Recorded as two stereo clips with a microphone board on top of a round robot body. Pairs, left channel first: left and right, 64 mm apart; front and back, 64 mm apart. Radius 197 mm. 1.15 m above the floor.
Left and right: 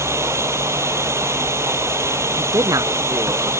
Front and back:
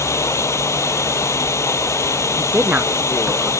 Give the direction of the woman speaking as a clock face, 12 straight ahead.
4 o'clock.